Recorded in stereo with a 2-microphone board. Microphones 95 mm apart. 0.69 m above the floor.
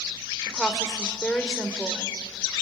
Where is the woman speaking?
5° left (ahead or behind), 2 m.